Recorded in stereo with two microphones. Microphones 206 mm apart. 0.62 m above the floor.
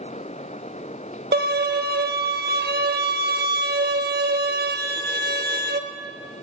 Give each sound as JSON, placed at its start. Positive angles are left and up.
{"t": 1.3, "sound": "a violin", "side_deg": -50, "distance_m": 0.6}